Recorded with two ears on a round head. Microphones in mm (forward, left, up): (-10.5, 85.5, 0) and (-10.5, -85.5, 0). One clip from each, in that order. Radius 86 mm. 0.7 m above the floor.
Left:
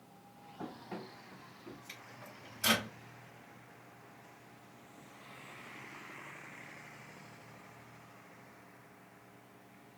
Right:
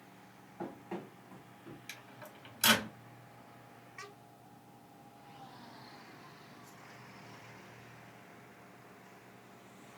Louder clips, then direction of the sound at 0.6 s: Right 2 dB; 10° right (ahead or behind).